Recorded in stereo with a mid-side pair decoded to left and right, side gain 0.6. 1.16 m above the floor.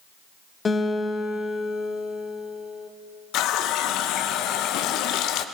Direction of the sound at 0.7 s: 30° left.